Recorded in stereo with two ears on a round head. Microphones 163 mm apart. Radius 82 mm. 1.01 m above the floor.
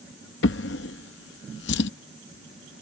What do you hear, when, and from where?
0.4 s a drawer: 65° left (ahead or behind)